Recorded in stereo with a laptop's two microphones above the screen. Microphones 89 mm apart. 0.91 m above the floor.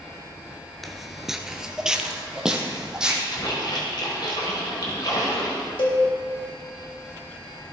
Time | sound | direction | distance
0.8 | footsteps | centre (ahead or behind) | 0.9 m
3.3 | a splash | 55° left (ahead or behind) | 3.5 m
5.8 | a cowbell | 65° left (ahead or behind) | 2 m